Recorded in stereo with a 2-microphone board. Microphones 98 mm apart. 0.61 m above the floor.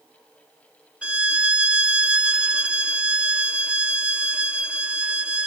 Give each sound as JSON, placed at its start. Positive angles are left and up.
{"t": 1.0, "sound": "a violin", "side_deg": -10}